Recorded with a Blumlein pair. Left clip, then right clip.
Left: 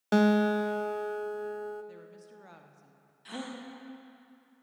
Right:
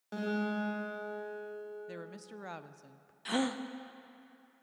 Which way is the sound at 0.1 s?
40° left.